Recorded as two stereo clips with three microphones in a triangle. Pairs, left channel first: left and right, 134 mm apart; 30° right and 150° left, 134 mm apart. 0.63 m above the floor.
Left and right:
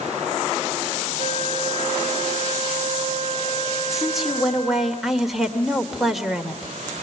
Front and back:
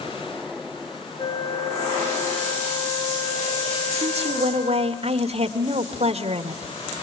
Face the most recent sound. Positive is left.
turn(degrees=180)